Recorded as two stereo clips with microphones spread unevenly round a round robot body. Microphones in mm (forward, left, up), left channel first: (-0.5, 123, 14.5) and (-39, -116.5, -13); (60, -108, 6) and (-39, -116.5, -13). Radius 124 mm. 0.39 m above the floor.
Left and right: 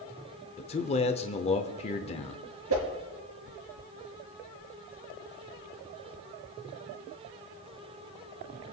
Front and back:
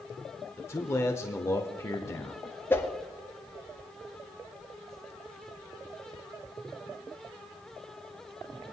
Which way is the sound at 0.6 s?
50° left.